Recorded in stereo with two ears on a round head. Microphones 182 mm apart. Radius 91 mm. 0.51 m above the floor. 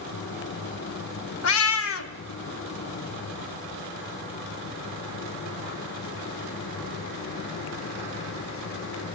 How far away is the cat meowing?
About 0.8 m.